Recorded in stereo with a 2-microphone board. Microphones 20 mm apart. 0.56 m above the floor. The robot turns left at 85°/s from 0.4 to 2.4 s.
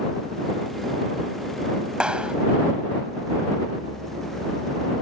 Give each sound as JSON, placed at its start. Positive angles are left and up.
{"t": 2.0, "sound": "a clap", "side_deg": -55}